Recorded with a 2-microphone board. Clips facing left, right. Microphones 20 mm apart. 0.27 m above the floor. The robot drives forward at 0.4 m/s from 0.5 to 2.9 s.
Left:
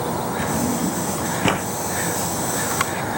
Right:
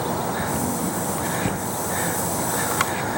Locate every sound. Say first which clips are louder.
0.4 s a drawer: left 3 dB; 75° left (ahead or behind); by 1.7 s 70° left (ahead or behind)